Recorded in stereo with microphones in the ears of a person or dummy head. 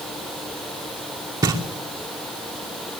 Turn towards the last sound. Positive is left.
turn(degrees=-15)  # may be behind; listen again after turning